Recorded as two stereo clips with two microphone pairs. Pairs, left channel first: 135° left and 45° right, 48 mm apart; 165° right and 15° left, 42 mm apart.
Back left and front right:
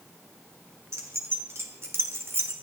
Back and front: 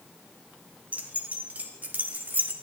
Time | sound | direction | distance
0.9 | keys jangling | 35° right | 2 m